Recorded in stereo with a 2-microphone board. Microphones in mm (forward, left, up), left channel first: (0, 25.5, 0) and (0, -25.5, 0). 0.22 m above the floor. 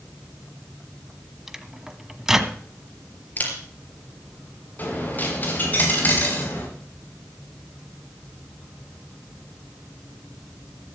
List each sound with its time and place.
1.5 s a microwave: 10° right (ahead or behind), 1.0 m
3.4 s a camera shutter: 35° left (ahead or behind), 3.5 m
4.8 s a dropped coin: 35° left (ahead or behind), 5 m